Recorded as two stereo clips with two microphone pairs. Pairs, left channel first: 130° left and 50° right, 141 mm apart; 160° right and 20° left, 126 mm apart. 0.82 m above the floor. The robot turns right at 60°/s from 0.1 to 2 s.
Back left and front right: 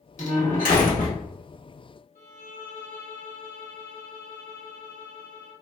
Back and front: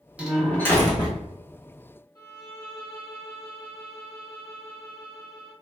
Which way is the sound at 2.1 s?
140° left.